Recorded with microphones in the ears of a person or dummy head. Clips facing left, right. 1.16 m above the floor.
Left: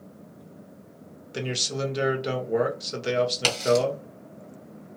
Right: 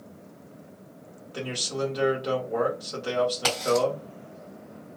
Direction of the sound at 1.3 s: 30° left (ahead or behind).